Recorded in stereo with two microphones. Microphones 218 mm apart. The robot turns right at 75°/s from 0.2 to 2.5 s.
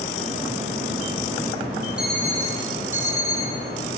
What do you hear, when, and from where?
2.0 s an alarm clock: 5° right, 9.5 m; by 3.5 s 35° left, 9.5 m